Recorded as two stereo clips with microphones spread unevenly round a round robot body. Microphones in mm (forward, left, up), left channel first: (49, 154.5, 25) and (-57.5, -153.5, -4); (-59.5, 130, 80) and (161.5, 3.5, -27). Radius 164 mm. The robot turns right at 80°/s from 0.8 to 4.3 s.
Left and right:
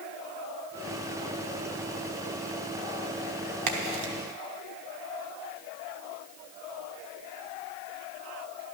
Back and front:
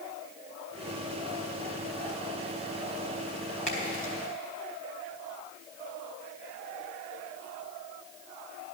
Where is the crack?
140° right, 1.2 m; by 4.1 s 100° right, 1.2 m.